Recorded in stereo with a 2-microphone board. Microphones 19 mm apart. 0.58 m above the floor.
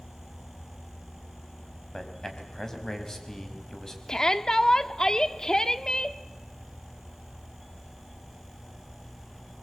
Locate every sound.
1.9 s a man speaking: 25° left (ahead or behind), 4 m
4.1 s a shout: 35° left (ahead or behind), 1.3 m